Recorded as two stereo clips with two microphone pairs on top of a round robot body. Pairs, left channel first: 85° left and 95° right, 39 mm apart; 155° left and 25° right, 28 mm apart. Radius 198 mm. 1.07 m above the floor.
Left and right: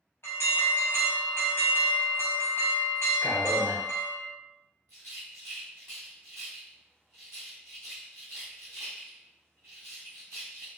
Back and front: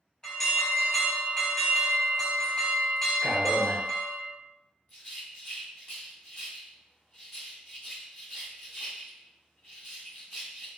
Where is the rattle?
150° left, 0.7 m.